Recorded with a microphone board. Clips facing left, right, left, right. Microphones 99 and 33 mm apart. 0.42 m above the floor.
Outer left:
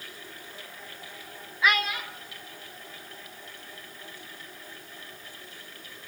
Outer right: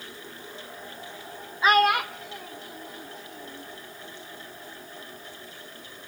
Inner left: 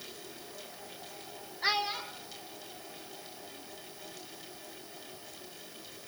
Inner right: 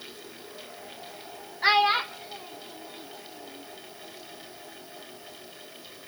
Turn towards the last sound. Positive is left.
turn(degrees=-70)  # may be behind; listen again after turning